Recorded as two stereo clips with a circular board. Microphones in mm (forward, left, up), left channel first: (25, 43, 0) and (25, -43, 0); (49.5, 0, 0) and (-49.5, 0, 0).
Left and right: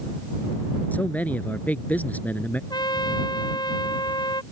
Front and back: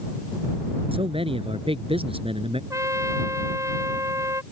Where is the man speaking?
160° left.